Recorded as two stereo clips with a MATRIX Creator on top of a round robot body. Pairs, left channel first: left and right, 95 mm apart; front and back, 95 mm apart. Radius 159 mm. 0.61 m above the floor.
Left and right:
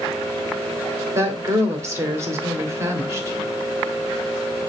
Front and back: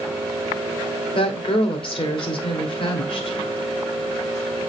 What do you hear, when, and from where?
1.1 s a woman speaking: 30° right, 2.5 m